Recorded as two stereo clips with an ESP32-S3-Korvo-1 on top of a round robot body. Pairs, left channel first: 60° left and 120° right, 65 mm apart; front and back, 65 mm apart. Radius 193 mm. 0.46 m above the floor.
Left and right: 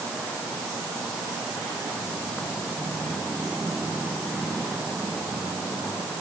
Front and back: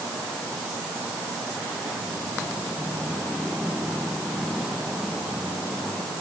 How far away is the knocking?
I don't hear knocking.